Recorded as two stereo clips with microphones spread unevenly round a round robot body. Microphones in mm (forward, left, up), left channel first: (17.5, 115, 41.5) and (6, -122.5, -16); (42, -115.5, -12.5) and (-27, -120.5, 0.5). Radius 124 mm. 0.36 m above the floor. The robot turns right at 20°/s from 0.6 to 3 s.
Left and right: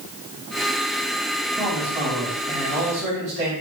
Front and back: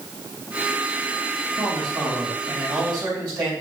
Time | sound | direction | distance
1.6 | a man speaking | 170° right | 2.5 m